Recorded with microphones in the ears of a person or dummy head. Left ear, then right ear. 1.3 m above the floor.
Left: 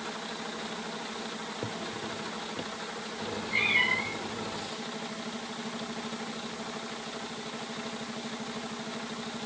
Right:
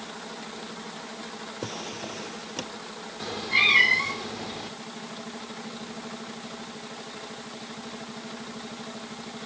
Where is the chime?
I don't hear a chime.